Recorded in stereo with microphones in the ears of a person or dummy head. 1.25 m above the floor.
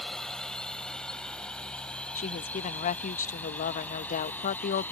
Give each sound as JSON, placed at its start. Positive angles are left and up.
{"t": 0.0, "sound": "a drone", "side_deg": 0}
{"t": 2.1, "sound": "a woman speaking", "side_deg": 45}